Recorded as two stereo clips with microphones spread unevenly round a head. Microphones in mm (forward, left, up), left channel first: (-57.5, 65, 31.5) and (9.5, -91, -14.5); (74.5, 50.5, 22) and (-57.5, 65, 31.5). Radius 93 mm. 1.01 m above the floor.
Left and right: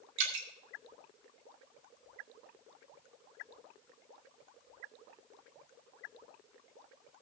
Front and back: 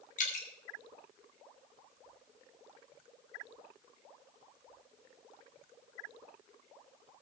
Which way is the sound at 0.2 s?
50° right.